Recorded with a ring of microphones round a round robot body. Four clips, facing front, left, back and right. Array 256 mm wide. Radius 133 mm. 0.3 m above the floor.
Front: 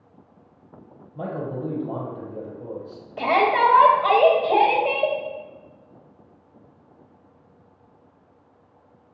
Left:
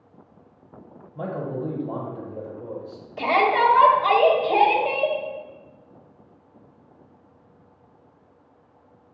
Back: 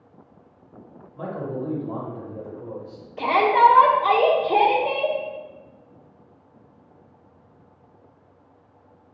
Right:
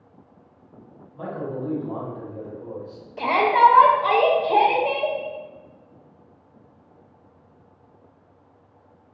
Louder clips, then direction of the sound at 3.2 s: Right 3 dB, back 2 dB; 15° left.